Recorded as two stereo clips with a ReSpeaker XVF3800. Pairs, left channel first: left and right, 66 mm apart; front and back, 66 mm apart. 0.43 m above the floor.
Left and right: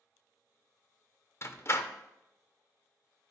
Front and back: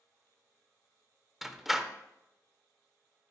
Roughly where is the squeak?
No squeak in this recording.